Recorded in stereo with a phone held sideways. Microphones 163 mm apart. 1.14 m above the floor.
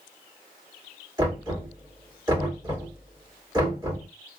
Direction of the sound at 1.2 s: 25° right (ahead or behind).